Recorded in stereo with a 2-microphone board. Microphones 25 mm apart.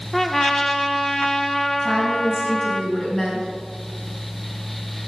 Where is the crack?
No crack in this recording.